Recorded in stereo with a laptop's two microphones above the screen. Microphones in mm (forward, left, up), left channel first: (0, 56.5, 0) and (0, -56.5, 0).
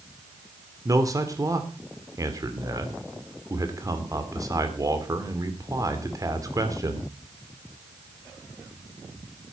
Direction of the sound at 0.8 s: 30° right (ahead or behind).